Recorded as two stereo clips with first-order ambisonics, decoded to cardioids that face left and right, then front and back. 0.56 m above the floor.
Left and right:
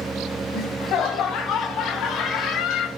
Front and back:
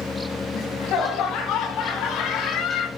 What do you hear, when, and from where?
0.5 s laughter: 45° left, 3.5 m; by 2.9 s 60° left, 2.5 m